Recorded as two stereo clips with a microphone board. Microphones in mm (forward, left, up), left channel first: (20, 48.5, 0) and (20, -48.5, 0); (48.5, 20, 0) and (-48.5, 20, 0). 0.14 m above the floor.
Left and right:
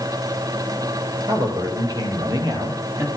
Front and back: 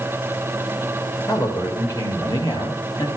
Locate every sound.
1.3 s a man speaking: 45° right, 5 m; by 3.1 s 35° right, 3.5 m